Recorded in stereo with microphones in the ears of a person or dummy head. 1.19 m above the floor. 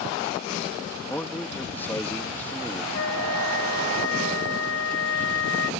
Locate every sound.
1.1 s a man speaking: 10° left (ahead or behind)
2.9 s a flute: 85° left